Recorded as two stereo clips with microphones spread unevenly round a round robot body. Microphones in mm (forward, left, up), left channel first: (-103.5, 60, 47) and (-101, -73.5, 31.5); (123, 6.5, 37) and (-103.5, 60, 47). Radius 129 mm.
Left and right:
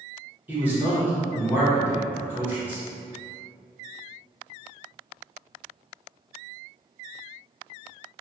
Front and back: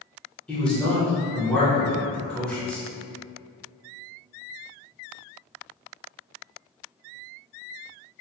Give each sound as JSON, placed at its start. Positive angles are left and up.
{"t": 0.5, "sound": "a man speaking", "azimuth_deg": -85, "distance_m": 0.8}